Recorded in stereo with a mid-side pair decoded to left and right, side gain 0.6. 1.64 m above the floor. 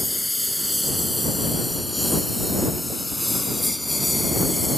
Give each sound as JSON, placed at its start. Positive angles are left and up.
{"t": 0.0, "sound": "a lawn mower", "azimuth_deg": 0}